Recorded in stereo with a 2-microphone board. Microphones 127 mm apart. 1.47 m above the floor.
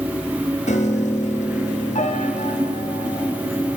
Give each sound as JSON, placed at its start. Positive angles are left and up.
{"t": 0.7, "sound": "a piano", "side_deg": 85, "distance_m": 3.0}